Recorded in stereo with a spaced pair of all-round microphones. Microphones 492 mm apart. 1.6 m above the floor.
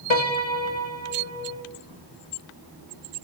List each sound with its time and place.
0.1 s a piano: 70° left (ahead or behind), 2 m